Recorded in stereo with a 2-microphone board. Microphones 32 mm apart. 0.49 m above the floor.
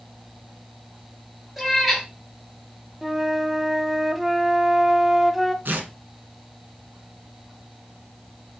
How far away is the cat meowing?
About 3.5 m.